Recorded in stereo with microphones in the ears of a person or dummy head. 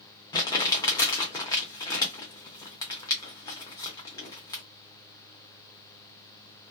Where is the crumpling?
20° left (ahead or behind), 0.7 m.